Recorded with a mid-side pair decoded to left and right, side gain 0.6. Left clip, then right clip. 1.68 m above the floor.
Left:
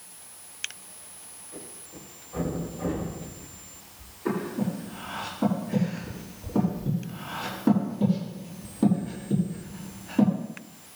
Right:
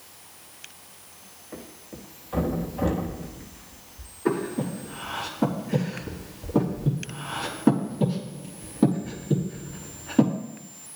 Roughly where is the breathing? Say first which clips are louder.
Right 3 dB; ahead right.